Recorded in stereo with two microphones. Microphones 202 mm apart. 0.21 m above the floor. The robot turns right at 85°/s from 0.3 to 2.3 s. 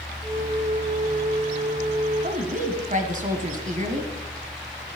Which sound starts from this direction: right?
A woman speaking, at 2.2 s.